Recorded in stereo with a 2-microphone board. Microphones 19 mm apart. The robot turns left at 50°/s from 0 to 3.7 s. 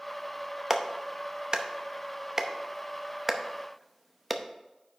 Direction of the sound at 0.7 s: 25° right (ahead or behind).